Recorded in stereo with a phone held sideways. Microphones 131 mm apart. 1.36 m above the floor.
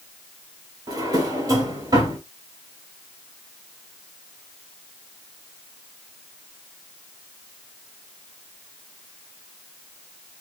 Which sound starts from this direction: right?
A drawer, at 0.9 s.